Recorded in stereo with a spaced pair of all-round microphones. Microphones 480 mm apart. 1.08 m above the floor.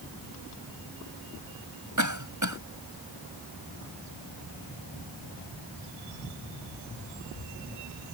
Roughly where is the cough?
Right.